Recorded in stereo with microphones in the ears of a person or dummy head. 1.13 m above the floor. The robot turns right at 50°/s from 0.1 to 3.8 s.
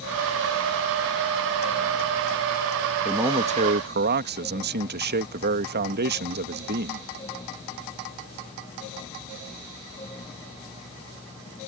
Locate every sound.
3.0 s a man speaking: 170° right; by 7.1 s 135° right